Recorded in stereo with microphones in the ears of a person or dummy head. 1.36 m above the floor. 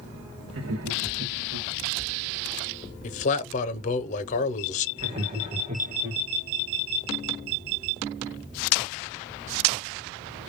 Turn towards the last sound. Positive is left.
turn(degrees=-35)  # may be behind; listen again after turning